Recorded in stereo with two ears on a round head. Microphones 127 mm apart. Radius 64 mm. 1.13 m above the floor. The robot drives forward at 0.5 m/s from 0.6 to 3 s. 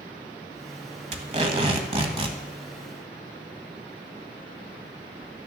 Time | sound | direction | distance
1.1 | tape being pulled | 50° right (ahead or behind) | 1.4 m